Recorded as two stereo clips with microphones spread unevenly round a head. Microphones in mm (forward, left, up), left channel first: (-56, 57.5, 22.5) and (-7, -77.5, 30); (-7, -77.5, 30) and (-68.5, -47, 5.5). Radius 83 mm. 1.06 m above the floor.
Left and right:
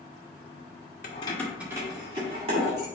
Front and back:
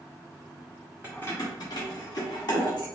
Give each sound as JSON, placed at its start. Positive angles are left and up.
{"t": 1.0, "sound": "keys jangling", "azimuth_deg": 70, "distance_m": 0.6}